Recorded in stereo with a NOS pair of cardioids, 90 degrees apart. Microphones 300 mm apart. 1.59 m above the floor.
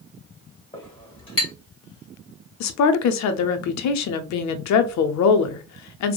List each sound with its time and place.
0.7 s a clink: 20° left, 1.6 m
2.6 s a woman speaking: 65° left, 0.6 m